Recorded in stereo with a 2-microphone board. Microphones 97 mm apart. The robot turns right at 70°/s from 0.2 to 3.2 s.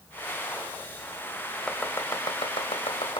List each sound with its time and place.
1.7 s chopping: 10° left (ahead or behind), 3 m; by 3.2 s 60° left (ahead or behind), 3 m